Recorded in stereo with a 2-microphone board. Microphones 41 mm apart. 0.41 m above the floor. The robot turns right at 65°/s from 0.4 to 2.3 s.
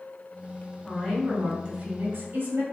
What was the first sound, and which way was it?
A woman speaking, 145° left.